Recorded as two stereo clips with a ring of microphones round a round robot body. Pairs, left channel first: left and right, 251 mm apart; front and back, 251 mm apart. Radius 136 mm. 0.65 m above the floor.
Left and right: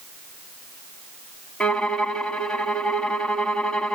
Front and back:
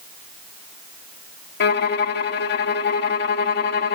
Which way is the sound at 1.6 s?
5° left.